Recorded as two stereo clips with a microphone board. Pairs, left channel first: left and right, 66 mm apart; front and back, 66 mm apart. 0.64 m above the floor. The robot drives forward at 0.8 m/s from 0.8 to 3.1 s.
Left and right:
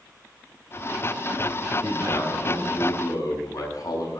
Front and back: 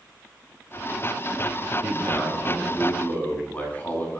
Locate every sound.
1.8 s a man speaking: 55° left, 7 m; by 4.2 s 65° left, 6.5 m